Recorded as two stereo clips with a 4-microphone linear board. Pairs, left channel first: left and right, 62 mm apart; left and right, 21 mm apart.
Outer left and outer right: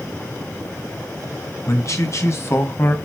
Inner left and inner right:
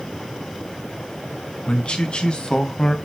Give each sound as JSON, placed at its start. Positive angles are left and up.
{"t": 1.7, "sound": "a man speaking", "side_deg": 55, "distance_m": 3.0}